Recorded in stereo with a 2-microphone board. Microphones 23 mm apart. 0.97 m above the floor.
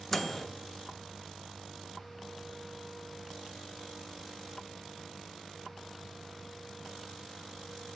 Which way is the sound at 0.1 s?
10° left (ahead or behind).